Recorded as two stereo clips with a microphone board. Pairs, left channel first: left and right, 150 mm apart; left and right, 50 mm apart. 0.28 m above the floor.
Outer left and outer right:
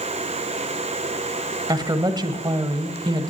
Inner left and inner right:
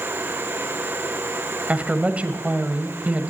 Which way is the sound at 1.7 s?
30° right (ahead or behind).